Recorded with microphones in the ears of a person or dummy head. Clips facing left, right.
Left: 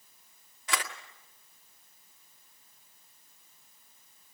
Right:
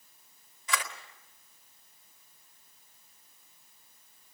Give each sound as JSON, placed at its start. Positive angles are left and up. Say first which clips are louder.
{"t": 0.7, "sound": "a camera shutter", "louder": "even", "side_deg": 50, "distance_m": 1.8}